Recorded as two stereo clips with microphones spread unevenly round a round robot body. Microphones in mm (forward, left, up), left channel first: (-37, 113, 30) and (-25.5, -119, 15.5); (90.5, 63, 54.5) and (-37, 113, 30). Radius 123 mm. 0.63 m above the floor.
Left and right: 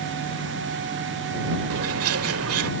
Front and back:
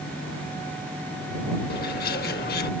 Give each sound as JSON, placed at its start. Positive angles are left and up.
{"t": 1.7, "sound": "a bird", "azimuth_deg": -55}